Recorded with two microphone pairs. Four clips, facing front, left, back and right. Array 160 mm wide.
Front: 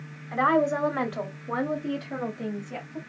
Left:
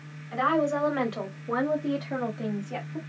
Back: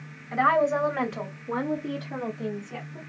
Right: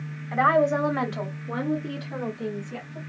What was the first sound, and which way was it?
A woman speaking, 75° right.